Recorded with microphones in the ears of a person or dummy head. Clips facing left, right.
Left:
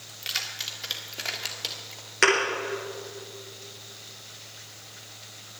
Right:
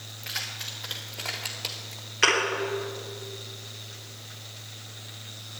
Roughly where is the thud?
Left.